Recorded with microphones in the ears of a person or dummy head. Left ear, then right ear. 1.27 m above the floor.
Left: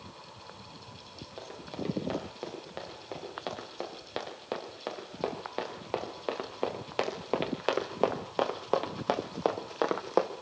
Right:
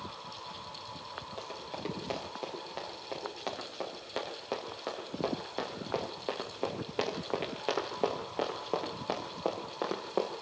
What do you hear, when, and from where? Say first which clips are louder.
1.4 s running footsteps: left 3 dB; 5° right (ahead or behind), 8.5 m; by 10.3 s 65° left (ahead or behind), 3 m